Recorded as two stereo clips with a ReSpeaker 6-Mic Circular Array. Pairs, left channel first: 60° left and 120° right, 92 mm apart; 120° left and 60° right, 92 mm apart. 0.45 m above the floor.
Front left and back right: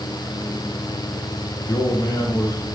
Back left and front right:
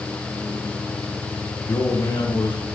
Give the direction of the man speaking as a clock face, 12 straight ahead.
8 o'clock.